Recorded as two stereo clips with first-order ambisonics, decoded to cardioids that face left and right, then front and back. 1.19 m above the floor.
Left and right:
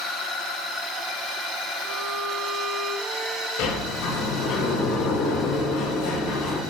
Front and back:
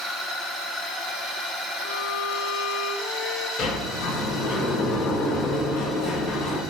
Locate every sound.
1.8 s a violin: 30° right, 1.8 m
3.6 s a sliding door: 65° left, 6 m